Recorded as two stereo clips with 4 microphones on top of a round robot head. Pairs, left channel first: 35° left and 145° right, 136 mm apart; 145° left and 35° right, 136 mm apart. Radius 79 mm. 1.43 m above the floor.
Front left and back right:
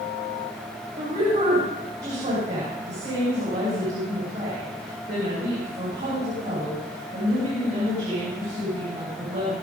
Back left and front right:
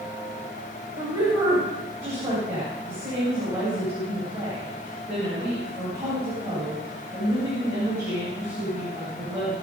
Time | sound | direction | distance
0.9 | a woman speaking | 105° right | 9 m